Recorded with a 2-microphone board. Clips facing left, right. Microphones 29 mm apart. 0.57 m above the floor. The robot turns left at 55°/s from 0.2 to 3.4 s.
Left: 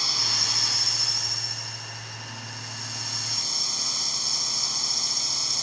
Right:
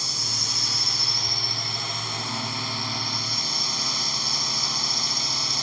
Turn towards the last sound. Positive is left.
turn(degrees=-155)